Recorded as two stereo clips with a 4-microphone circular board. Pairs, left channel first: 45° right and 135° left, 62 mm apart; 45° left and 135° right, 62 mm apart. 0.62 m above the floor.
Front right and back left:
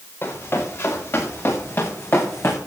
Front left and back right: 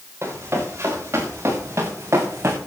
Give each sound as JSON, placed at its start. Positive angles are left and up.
{"t": 0.2, "sound": "running footsteps", "azimuth_deg": -95, "distance_m": 6.5}